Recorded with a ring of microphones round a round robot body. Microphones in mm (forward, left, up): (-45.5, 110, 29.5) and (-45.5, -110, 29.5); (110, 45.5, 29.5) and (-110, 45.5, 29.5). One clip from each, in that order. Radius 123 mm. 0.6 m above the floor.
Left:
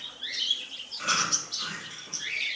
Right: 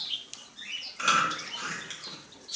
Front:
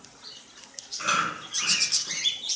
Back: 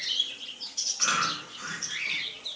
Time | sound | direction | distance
1.0 | chewing | 105° right | 2.5 m